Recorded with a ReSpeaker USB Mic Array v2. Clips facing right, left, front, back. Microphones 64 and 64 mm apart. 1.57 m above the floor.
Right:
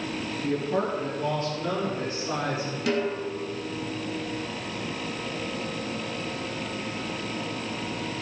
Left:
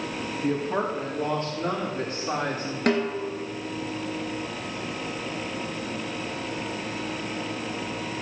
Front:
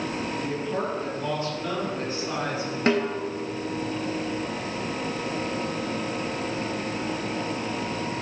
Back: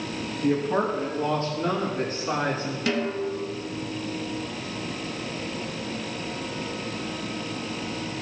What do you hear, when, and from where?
0.4 s a woman speaking: 135° left, 4 m; by 2.8 s 130° left, 5.5 m
2.9 s a snare drum: 55° left, 2.5 m